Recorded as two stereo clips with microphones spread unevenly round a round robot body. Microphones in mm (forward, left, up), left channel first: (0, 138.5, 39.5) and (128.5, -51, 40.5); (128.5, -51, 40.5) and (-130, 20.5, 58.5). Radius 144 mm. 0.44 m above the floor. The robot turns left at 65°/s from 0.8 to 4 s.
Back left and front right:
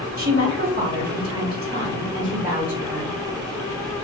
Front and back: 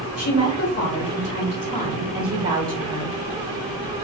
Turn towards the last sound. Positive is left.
turn(degrees=140)